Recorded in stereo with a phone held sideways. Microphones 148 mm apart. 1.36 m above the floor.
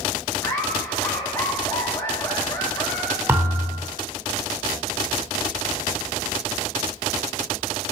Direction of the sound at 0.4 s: 20° left (ahead or behind).